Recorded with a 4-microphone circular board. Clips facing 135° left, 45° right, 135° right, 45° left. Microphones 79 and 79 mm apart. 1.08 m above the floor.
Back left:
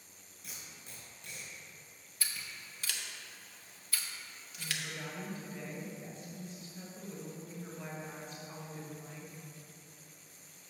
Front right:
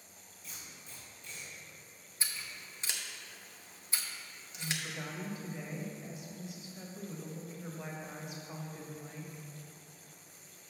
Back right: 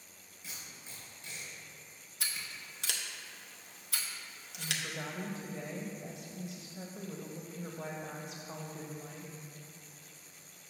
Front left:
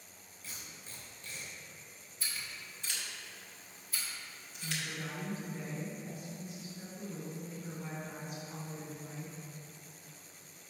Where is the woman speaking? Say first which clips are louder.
Front right 2 dB, back right 1 dB; 120° right, 1.3 m.